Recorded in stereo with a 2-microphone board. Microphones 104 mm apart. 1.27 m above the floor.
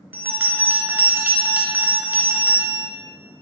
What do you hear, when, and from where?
0.1 s a bell: 20° right (ahead or behind), 0.6 m